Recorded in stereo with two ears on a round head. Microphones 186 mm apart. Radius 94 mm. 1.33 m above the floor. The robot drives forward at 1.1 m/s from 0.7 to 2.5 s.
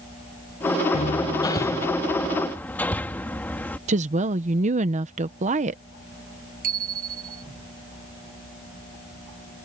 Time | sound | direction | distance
0.9 | hammering | 35° left (ahead or behind) | ?
3.9 | a woman speaking | 35° right (ahead or behind) | ?
6.6 | a bicycle bell | 45° right (ahead or behind) | ?